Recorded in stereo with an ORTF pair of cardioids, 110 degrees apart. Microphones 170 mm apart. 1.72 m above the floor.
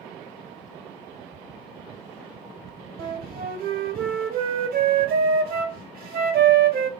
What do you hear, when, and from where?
3.0 s a flute: 65° right, 1.2 m